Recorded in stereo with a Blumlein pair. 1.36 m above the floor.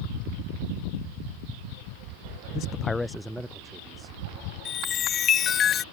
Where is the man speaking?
40° left; by 4.2 s 15° right.